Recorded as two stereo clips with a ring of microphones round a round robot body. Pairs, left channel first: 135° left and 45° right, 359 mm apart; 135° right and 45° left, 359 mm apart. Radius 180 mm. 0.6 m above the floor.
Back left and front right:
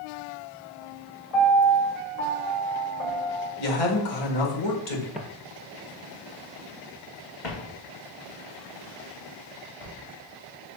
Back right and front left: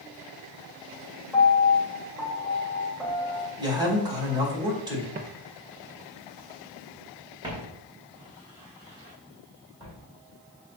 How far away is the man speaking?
About 2 m.